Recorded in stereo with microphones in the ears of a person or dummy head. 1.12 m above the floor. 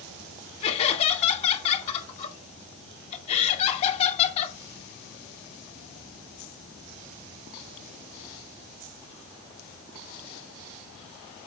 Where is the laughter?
35° left (ahead or behind), 2.5 m.